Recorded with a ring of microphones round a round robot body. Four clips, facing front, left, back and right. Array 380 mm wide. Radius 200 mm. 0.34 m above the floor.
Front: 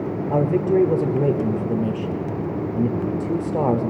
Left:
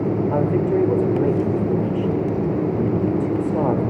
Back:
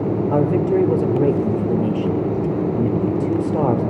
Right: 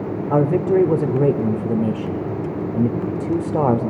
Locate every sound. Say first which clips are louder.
0.3 s a man speaking: right 6 dB, even; 105° right, 0.9 m